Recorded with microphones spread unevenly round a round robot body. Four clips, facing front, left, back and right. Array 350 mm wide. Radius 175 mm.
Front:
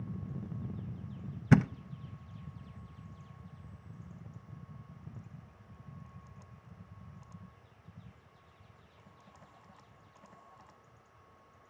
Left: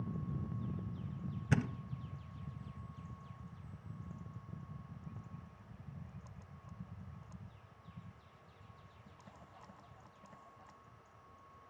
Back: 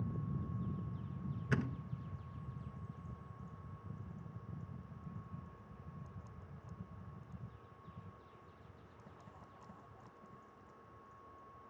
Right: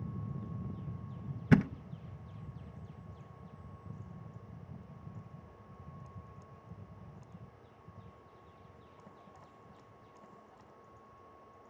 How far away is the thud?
About 0.6 m.